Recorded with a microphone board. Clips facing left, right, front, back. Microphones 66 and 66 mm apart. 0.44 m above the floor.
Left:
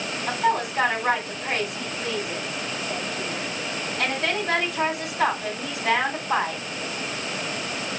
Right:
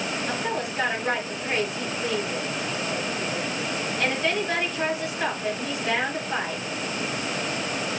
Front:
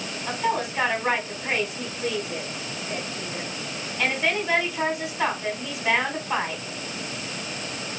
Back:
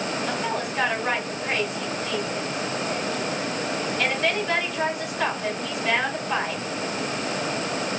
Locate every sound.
0.3 s a woman speaking: 80° left, 3 m